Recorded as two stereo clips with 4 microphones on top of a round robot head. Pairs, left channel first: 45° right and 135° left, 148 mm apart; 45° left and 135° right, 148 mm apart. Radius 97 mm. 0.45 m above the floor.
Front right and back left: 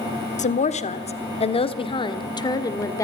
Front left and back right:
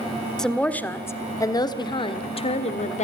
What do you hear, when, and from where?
0.4 s a woman speaking: 40° right, 1.6 m; by 3.0 s 20° left, 1.8 m